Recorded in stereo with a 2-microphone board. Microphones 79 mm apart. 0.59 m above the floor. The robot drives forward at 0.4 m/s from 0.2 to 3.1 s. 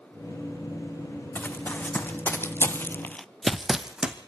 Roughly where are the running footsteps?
Left.